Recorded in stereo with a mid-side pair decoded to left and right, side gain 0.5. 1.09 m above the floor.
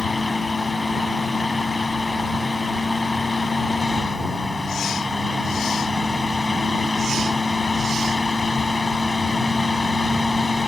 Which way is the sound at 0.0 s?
20° left.